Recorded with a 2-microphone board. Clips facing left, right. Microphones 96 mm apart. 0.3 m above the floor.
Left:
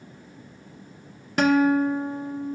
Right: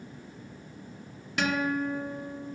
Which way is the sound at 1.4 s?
40° left (ahead or behind).